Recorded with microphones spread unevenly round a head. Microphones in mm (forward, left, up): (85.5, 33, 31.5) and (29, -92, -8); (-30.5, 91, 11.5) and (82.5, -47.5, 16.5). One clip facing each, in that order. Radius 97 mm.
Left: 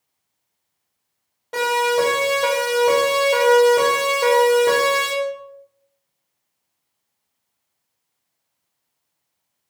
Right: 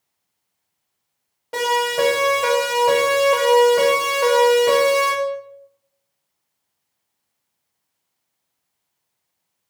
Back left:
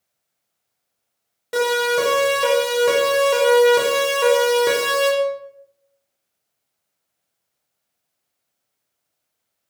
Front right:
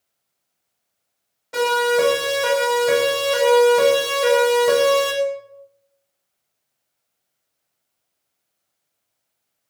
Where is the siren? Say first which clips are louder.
Left 1 dB, front right 1 dB; 165° left, 9 m; by 5.1 s 135° left, 5.5 m.